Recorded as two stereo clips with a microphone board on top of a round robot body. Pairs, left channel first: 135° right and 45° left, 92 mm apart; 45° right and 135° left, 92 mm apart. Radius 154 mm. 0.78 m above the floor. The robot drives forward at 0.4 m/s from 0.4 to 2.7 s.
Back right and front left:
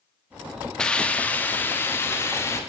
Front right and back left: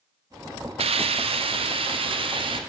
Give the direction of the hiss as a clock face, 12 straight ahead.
7 o'clock.